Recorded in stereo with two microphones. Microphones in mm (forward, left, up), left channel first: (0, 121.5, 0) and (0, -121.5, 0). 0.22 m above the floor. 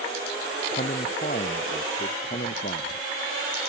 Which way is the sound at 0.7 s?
40° left (ahead or behind).